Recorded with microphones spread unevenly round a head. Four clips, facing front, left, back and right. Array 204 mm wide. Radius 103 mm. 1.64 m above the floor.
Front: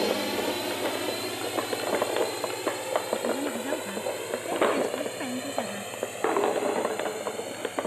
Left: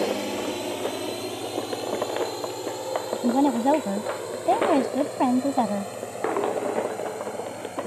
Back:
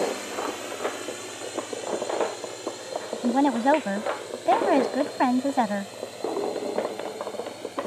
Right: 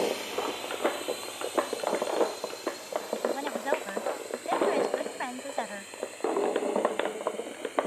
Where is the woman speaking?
125° left.